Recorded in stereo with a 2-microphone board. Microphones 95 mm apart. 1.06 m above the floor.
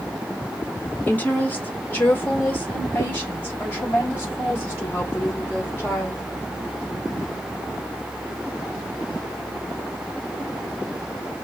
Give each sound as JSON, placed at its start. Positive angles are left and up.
{"t": 1.1, "sound": "a woman speaking", "side_deg": 20, "distance_m": 1.3}